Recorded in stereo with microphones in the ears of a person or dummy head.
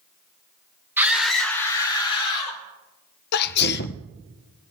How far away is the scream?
About 1.3 m.